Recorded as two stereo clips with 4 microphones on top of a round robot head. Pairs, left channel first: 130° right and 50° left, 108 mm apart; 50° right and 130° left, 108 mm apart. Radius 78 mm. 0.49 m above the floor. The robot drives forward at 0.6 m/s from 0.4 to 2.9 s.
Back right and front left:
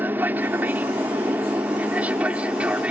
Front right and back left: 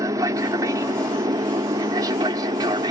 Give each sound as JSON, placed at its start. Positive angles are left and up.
{"t": 0.0, "sound": "an aircraft", "azimuth_deg": 110}